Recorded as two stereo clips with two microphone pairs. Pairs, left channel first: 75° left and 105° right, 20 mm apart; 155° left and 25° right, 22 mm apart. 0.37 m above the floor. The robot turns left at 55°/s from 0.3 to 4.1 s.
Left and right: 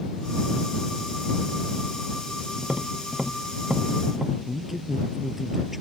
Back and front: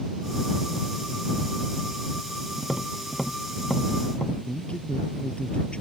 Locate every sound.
2.6 s tapping: 95° right; by 4.4 s 175° right
4.5 s a man speaking: straight behind